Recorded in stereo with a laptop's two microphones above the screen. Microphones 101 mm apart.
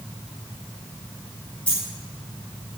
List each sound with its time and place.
1.7 s a dropped coin: 15° left (ahead or behind), 3.5 m